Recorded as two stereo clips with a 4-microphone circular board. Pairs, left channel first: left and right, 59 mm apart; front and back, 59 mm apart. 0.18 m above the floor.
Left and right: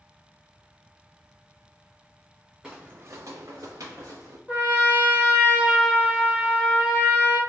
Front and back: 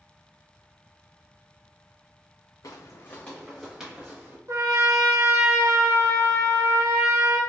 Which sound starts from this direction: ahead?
Footsteps, at 2.6 s.